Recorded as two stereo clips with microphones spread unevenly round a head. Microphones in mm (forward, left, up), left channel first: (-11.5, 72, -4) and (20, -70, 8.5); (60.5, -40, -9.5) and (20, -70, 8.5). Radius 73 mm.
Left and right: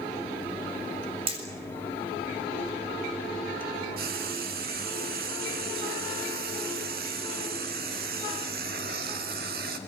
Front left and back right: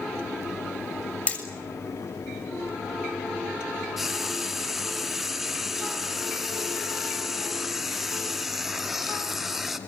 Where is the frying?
65° right, 2.5 m.